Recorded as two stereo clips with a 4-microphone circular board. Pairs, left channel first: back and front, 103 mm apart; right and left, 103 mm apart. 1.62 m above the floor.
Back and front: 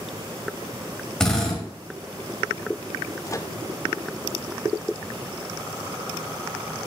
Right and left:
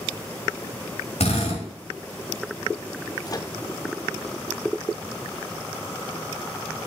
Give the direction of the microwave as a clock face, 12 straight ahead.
4 o'clock.